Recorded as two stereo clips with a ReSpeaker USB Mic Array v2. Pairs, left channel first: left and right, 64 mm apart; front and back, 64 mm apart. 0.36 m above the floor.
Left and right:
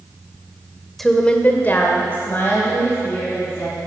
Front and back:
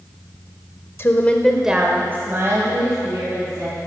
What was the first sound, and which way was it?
A woman speaking, 5° left.